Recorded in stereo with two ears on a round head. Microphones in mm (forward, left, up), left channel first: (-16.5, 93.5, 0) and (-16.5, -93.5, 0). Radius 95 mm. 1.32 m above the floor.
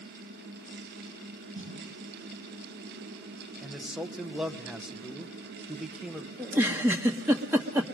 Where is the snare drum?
65° right (ahead or behind), 5 m.